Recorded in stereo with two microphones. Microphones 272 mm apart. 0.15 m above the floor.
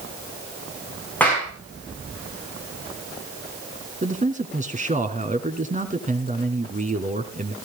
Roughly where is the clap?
Centre.